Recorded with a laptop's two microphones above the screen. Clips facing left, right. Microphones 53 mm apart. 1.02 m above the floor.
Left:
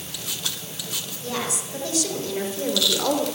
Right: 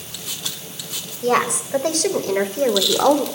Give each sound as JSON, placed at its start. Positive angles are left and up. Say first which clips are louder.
{"t": 1.2, "sound": "a woman speaking", "louder": "right 11 dB", "side_deg": -65, "distance_m": 5.5}